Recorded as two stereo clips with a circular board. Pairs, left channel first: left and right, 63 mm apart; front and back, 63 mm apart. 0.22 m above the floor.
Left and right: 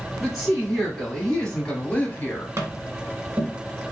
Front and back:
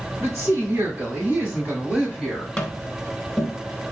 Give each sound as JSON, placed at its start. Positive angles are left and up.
{"t": 0.2, "sound": "a woman speaking", "azimuth_deg": -170, "distance_m": 2.0}
{"t": 2.6, "sound": "tapping", "azimuth_deg": -70, "distance_m": 1.0}